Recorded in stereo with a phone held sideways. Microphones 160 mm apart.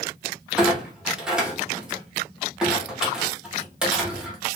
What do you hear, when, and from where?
0.6 s a clunk: 5° right (ahead or behind), 0.8 m